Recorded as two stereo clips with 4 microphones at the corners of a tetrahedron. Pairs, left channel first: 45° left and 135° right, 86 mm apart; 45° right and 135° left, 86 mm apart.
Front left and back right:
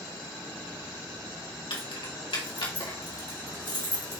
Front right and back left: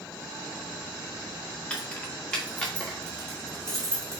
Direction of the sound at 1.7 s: 30° left.